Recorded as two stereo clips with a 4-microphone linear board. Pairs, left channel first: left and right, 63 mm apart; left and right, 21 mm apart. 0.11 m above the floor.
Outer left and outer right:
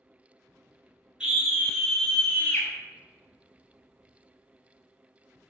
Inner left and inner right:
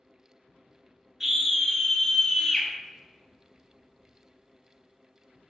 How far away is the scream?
About 1.2 m.